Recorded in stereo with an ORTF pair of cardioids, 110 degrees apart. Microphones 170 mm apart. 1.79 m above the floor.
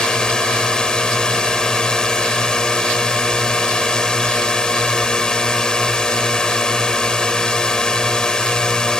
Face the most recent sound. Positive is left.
turn(degrees=5)